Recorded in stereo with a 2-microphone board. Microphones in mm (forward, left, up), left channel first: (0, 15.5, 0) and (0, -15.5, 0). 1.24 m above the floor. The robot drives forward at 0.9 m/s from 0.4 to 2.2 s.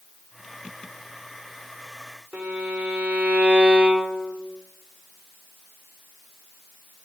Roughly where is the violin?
Right.